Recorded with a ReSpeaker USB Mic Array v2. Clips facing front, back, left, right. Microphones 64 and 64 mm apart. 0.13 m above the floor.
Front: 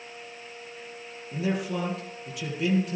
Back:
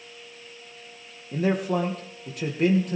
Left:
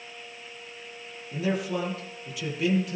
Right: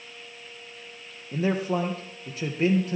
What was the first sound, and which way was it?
A man speaking, 140° right.